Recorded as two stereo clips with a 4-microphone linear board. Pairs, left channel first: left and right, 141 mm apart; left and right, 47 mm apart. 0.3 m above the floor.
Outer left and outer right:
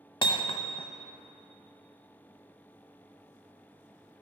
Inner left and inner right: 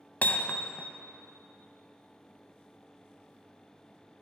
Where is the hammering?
35° left (ahead or behind), 0.7 m.